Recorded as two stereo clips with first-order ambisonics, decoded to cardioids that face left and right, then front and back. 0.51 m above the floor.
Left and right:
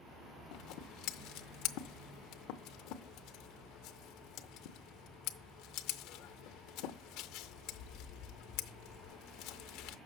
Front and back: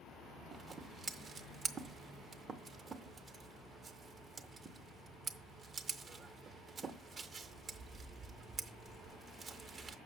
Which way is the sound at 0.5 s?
110° left.